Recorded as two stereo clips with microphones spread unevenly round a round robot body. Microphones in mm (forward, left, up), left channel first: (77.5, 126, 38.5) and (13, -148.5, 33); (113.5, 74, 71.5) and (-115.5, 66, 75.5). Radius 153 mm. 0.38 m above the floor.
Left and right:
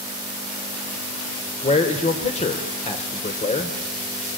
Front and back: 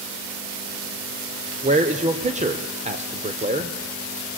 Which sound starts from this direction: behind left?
A man speaking, at 1.6 s.